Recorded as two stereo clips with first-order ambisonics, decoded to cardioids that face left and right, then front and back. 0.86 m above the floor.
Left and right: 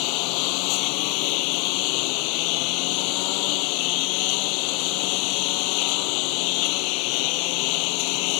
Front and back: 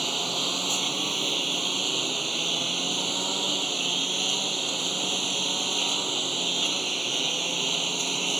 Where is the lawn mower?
100° left.